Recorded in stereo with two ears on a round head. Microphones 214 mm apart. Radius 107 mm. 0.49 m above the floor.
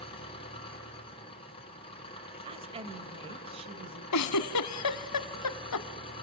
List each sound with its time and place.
0.0 s an engine running: 25° left (ahead or behind), 5 m
2.5 s a woman speaking: 25° right (ahead or behind), 2 m
4.1 s a giggle: 75° left (ahead or behind), 1.0 m